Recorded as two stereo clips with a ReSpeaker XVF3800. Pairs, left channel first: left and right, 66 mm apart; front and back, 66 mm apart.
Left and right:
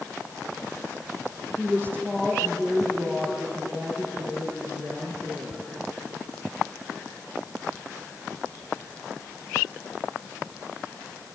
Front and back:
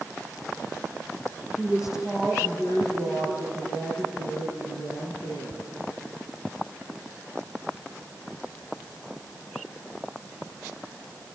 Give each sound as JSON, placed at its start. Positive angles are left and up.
{"t": 1.6, "sound": "a woman speaking", "azimuth_deg": -30, "distance_m": 7.0}